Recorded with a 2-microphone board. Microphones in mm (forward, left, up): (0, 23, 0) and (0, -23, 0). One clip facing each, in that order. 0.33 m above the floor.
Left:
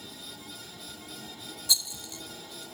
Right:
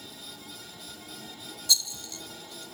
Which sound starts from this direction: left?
A rattle, at 1.7 s.